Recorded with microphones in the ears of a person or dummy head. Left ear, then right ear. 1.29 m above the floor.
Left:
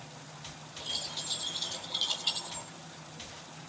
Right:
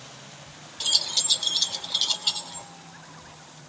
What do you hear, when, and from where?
0.8 s keys jangling: 50° right (ahead or behind), 2 m; by 2.7 s 5° right (ahead or behind), 2 m